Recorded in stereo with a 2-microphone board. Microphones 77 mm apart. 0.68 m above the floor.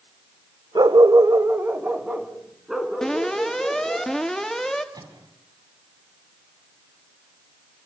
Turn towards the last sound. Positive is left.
turn(degrees=-60)  # may be behind; listen again after turning